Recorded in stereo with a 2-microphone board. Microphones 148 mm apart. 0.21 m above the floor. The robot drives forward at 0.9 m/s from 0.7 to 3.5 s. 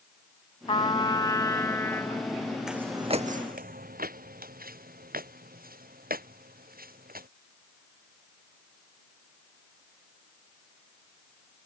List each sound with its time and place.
0.7 s a trumpet: 35° left (ahead or behind); by 2.6 s 10° left (ahead or behind)
2.7 s footsteps: 5° right (ahead or behind); by 7.3 s 80° right